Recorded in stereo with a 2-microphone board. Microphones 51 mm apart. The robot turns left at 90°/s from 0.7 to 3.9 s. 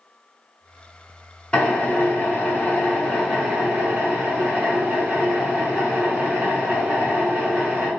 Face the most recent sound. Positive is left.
turn(degrees=-60)